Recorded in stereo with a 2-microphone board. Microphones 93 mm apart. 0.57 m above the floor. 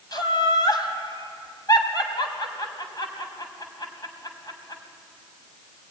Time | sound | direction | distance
0.1 | laughter | 45° left (ahead or behind) | 3.5 m